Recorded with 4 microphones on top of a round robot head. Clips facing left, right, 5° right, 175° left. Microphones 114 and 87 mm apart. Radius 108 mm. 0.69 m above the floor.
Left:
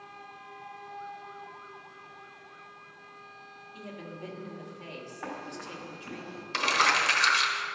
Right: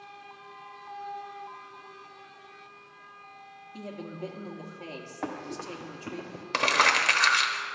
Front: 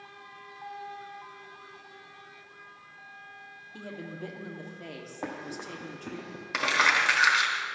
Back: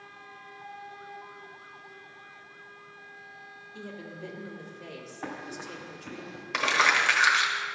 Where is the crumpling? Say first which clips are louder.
Right 2 dB, back 1 dB; 90° right, 1.2 m.